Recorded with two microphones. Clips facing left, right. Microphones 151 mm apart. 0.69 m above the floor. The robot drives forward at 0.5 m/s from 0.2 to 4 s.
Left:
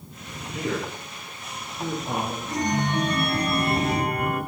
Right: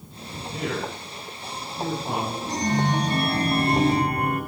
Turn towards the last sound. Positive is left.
turn(degrees=-50)  # may be behind; listen again after turning